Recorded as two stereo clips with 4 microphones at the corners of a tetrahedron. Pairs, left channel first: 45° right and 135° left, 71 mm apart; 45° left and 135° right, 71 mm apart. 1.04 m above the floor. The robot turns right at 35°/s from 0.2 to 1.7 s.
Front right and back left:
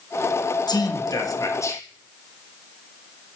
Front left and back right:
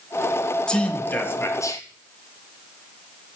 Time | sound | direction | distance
0.7 | a man speaking | 35° right | 1.1 m